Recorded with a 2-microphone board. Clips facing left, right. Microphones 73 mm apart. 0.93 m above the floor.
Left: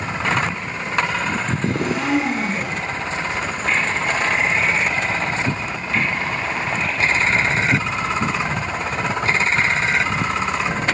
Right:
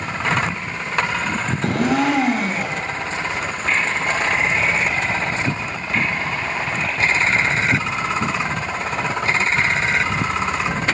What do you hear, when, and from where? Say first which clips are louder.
1.6 s a blender: right 6 dB; 80° right, 7 m